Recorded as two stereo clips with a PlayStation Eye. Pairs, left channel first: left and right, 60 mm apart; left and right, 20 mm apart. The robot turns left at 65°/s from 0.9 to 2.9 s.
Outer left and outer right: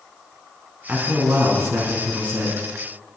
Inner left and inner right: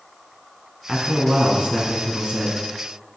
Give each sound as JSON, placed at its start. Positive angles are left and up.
{"t": 0.9, "sound": "a man speaking", "azimuth_deg": -25, "distance_m": 2.5}